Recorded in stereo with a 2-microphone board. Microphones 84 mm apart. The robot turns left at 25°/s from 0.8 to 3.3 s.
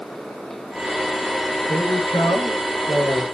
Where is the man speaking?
135° left, 5 m; by 3.2 s 95° left, 5 m.